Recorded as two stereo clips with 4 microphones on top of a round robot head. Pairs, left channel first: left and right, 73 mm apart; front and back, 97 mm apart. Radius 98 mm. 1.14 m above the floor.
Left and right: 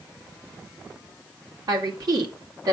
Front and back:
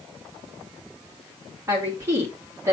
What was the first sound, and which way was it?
A woman speaking, 115° right.